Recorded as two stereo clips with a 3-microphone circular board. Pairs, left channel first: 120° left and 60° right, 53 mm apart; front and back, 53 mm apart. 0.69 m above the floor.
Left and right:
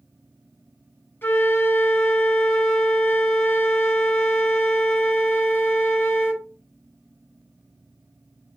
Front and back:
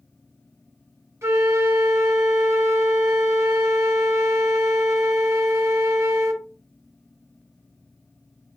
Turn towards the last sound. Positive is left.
turn(degrees=165)